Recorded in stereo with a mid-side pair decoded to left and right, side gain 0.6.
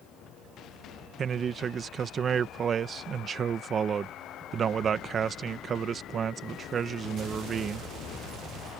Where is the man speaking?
40° right.